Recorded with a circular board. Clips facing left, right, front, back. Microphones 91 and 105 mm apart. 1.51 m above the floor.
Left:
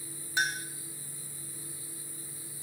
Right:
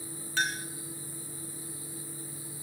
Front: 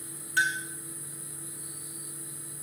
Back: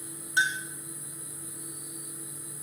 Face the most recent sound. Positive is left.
turn(degrees=140)